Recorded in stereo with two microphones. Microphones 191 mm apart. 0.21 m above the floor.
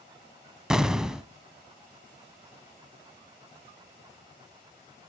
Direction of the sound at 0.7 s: 5° right (ahead or behind).